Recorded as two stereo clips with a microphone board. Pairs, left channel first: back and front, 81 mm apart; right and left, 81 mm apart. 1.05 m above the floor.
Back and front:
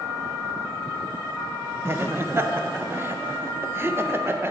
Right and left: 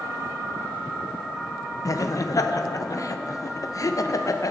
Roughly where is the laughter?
Ahead right.